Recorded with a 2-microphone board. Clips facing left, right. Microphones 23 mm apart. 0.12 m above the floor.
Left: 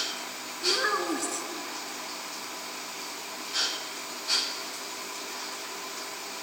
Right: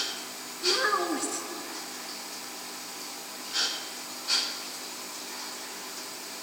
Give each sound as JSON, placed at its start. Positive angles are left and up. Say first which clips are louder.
{"t": 0.6, "sound": "a child speaking", "louder": "right 1 dB", "side_deg": 0, "distance_m": 0.9}